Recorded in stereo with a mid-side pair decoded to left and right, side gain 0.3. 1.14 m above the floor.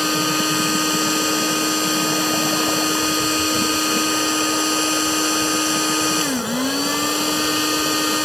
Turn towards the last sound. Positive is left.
turn(degrees=15)